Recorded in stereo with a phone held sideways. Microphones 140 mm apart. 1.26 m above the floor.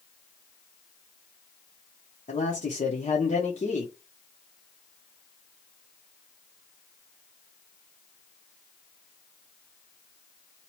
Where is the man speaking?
60° left (ahead or behind), 0.7 m.